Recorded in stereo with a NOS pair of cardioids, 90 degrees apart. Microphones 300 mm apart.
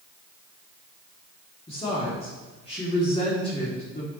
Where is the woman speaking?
20° left, 2.5 m.